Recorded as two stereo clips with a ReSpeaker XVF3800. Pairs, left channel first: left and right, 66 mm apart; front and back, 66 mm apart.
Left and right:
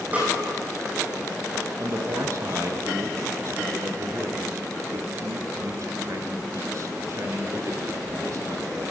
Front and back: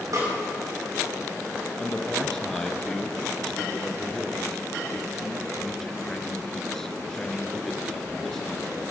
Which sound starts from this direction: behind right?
A snare drum, at 0.1 s.